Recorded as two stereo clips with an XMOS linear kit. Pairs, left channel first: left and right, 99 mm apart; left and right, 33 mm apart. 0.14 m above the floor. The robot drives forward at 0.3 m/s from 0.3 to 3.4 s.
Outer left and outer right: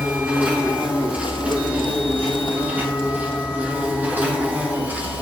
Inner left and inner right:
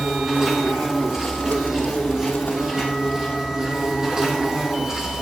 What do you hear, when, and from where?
0.0 s an insect: 15° right (ahead or behind), 4 m; by 5.2 s 20° right (ahead or behind), 3 m